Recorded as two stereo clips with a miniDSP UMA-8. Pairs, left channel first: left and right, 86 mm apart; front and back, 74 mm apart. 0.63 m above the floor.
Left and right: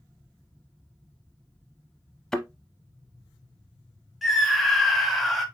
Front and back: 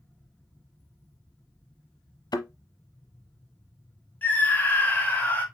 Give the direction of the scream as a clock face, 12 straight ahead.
12 o'clock.